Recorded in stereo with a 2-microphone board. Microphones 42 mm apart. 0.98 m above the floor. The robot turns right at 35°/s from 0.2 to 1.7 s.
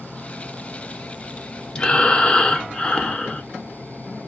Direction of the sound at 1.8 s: 20° left (ahead or behind).